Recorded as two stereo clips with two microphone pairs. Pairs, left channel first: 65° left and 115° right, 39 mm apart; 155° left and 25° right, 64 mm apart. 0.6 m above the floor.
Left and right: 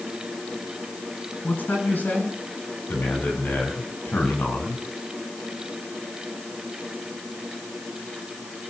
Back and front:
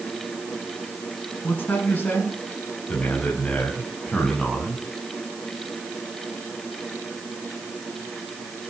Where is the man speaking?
95° left, 7 m; by 4.8 s 65° left, 5.5 m.